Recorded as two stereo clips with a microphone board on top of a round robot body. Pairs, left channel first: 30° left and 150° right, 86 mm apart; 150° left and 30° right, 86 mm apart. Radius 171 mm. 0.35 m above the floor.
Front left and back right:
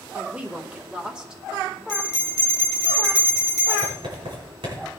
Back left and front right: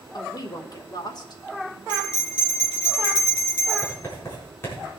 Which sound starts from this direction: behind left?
A woman speaking, at 0.1 s.